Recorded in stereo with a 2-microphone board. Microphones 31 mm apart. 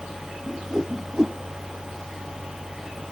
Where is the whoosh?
20° right (ahead or behind).